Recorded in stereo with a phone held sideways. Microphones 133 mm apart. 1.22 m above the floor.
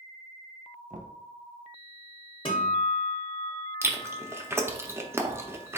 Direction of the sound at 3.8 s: 20° right (ahead or behind).